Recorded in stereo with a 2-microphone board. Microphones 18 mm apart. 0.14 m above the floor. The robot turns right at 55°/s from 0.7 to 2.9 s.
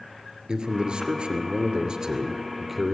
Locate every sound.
0.5 s a man speaking: 120° right, 2.5 m; by 2.9 s straight ahead, 2.5 m